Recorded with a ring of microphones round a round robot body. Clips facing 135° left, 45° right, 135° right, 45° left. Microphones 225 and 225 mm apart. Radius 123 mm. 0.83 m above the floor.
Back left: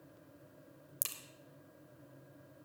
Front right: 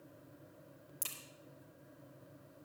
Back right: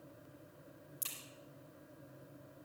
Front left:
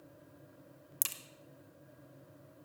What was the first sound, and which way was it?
A crack, 70° left.